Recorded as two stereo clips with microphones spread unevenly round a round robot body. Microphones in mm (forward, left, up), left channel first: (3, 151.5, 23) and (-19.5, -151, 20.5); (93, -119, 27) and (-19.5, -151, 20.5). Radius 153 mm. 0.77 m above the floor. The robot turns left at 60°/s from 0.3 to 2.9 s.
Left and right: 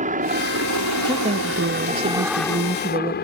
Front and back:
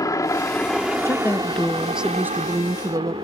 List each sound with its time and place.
0.0 s a helicopter: 35° right; by 3.2 s 140° left
1.1 s a woman speaking: 35° right; by 3.1 s 145° right